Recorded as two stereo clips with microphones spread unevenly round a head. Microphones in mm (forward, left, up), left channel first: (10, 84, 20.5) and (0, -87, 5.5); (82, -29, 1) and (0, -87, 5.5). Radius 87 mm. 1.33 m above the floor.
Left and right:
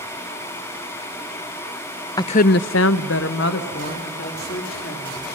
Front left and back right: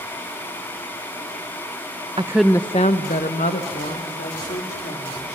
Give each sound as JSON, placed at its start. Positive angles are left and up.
{"t": 2.2, "sound": "a woman speaking", "azimuth_deg": 155, "distance_m": 0.5}